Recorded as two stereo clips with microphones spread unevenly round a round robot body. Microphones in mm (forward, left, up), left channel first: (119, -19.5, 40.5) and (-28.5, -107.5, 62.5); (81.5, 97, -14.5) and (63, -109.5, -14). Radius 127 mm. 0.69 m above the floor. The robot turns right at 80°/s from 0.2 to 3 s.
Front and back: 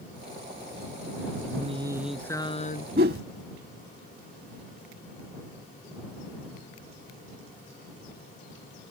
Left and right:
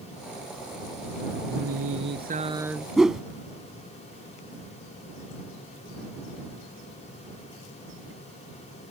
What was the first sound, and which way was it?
Singing, 110° right.